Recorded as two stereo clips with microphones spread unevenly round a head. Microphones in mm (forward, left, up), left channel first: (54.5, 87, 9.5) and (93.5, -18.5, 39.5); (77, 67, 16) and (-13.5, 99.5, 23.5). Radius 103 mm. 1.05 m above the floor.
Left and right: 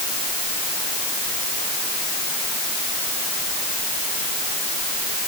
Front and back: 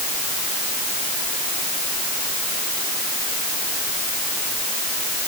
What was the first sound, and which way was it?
Only background noise.